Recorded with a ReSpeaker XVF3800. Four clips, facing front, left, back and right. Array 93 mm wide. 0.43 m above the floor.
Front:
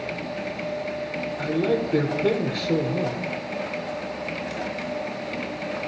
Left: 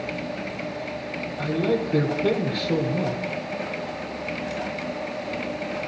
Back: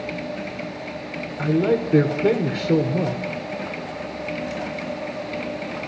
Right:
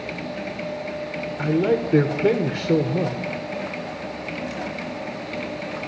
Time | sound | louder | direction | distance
1.4 | a man speaking | right 3 dB, back 4 dB | 125° right | 1.2 m